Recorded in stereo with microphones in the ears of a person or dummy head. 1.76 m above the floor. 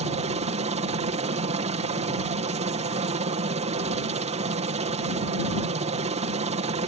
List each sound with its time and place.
0.0 s a helicopter: 35° right (ahead or behind)